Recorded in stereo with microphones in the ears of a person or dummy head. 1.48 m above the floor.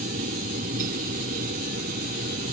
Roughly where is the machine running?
Right.